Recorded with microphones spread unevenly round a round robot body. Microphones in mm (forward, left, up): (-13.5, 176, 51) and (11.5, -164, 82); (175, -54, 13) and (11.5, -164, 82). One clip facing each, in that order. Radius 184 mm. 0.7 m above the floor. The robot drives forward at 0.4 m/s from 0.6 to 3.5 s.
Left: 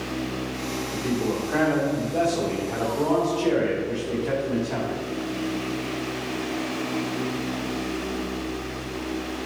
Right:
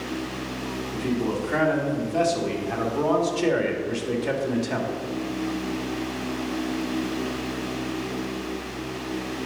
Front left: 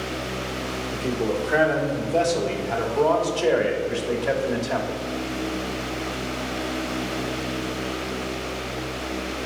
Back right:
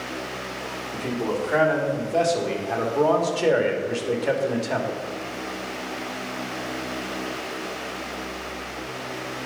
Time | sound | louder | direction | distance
0.9 | a man speaking | even, front left 1 dB | 40° right | 2.5 m